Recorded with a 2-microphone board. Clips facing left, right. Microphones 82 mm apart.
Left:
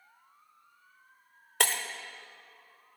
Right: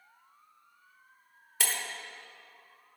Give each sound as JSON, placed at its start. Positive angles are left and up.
{"t": 1.6, "sound": "breaking glass", "side_deg": 65, "distance_m": 1.1}